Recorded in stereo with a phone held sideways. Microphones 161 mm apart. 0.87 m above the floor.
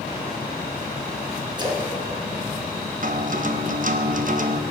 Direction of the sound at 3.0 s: 55° right (ahead or behind).